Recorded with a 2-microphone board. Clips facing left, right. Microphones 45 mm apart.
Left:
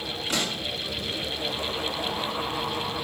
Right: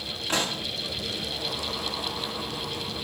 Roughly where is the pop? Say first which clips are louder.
Right 2 dB; right.